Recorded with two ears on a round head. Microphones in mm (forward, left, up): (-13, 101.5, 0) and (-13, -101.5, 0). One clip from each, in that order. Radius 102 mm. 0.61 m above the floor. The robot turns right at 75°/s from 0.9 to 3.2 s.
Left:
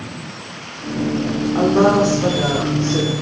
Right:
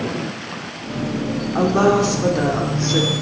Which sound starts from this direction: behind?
A woman speaking, at 1.6 s.